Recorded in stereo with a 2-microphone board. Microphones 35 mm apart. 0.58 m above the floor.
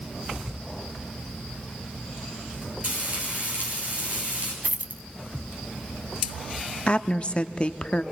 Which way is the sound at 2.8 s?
45° right (ahead or behind).